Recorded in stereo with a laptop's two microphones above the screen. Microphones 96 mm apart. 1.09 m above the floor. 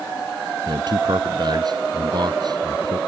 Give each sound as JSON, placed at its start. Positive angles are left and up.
{"t": 0.7, "sound": "a man speaking", "side_deg": -50}